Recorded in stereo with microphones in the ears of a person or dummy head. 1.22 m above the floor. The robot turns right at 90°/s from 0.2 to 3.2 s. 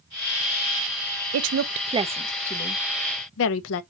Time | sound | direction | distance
1.3 | a woman speaking | 80° right | 0.6 m